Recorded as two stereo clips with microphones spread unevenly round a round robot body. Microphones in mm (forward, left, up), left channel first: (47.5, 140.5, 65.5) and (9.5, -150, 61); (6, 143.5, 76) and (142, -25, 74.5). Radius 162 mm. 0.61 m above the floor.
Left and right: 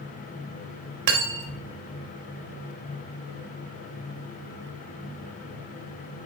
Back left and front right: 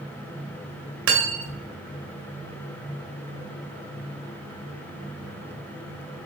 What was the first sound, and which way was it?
Cutlery clinking, 85° right.